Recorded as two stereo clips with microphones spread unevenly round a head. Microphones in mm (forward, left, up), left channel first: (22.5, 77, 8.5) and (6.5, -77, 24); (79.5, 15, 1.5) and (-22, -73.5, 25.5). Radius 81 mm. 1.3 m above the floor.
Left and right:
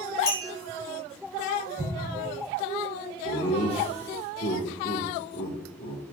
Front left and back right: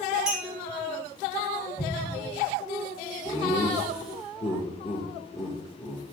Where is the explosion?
40° right, 4 m.